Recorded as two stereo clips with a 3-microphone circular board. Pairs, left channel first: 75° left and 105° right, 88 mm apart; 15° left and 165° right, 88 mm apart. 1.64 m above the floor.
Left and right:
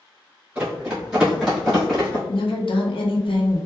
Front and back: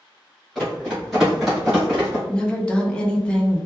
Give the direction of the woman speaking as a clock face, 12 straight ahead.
9 o'clock.